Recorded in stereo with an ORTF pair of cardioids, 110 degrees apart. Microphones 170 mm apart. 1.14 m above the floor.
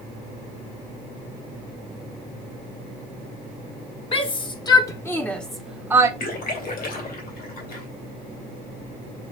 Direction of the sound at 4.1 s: 35° left.